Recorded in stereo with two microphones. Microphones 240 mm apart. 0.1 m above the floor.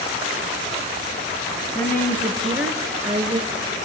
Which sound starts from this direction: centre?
A woman speaking, at 1.8 s.